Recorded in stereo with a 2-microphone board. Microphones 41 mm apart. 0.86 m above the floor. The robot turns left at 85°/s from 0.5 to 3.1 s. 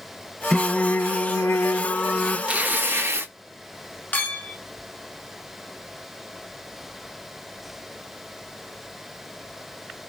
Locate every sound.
0.5 s singing: straight behind, 0.5 m; by 2.4 s 25° left, 0.5 m
2.5 s tearing paper: 25° right, 0.8 m; by 3.3 s 80° right, 0.8 m
4.1 s a clink: 45° left (ahead or behind), 0.9 m